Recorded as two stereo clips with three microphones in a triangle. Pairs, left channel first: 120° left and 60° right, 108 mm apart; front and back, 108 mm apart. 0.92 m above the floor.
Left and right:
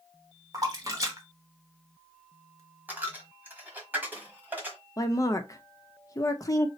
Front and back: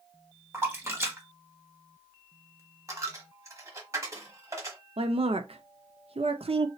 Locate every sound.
0.5 s a splash: 115° right, 1.1 m
2.9 s a dropped coin: 130° right, 1.0 m
5.0 s a woman speaking: 175° left, 0.6 m